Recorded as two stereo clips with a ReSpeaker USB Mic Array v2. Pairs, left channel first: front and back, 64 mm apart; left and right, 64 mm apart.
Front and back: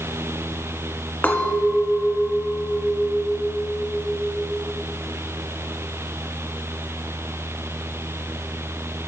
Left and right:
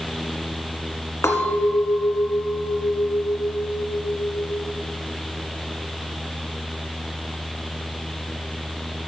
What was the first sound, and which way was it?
A clink, 65° left.